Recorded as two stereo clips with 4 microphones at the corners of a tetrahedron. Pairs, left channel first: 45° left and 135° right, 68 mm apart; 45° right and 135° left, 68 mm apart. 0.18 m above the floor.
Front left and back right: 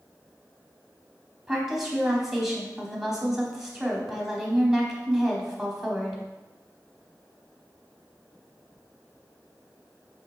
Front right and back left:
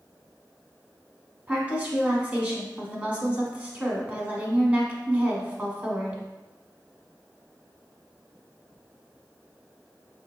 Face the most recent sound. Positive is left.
turn(degrees=145)